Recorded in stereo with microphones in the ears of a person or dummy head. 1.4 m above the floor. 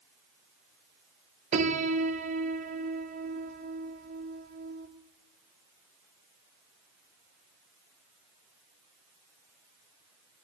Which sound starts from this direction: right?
A piano, at 1.5 s.